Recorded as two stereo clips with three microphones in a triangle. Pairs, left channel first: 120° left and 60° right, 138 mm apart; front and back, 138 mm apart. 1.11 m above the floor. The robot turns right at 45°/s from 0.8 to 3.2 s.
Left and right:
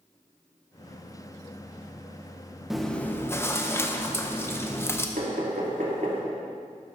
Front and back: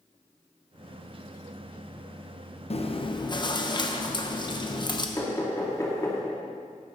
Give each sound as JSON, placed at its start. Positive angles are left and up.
{"t": 2.7, "sound": "chewing", "azimuth_deg": 25, "distance_m": 0.8}
{"t": 5.2, "sound": "knocking", "azimuth_deg": -65, "distance_m": 2.0}